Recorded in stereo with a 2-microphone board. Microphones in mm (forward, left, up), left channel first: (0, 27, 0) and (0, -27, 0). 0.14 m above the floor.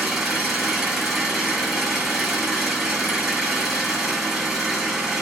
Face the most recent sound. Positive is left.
turn(degrees=-5)  # may be behind; listen again after turning